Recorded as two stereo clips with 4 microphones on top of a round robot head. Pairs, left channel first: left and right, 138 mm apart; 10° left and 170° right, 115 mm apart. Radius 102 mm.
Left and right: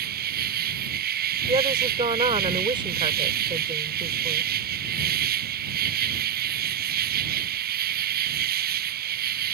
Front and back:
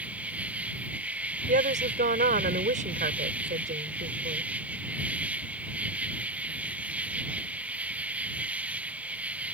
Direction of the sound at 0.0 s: 90° right.